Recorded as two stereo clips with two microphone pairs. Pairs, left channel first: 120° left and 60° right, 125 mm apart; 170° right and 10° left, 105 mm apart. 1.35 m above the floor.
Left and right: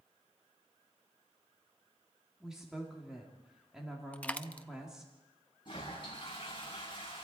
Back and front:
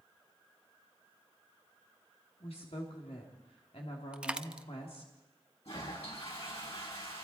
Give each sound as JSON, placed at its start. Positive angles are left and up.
{"t": 2.4, "sound": "a woman speaking", "azimuth_deg": -145, "distance_m": 3.5}
{"t": 4.1, "sound": "a dropped coin", "azimuth_deg": 70, "distance_m": 0.7}
{"t": 5.7, "sound": "a toilet flushing", "azimuth_deg": 170, "distance_m": 9.5}